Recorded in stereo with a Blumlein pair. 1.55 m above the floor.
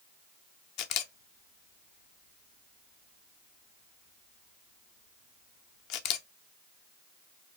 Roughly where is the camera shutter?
Ahead left.